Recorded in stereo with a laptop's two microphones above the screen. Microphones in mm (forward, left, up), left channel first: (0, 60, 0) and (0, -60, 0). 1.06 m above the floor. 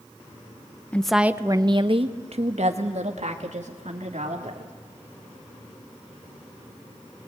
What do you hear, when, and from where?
0.9 s a woman speaking: 10° left (ahead or behind), 0.7 m; by 4.7 s 80° right, 3 m